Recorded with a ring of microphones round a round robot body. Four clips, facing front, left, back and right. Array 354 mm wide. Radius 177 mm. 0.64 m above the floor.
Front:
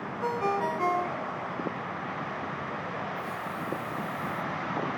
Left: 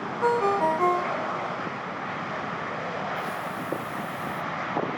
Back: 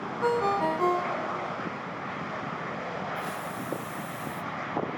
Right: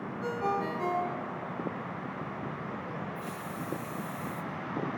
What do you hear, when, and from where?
0.2 s a ringtone: 105° left, 1.4 m
3.1 s a hiss: straight behind, 3 m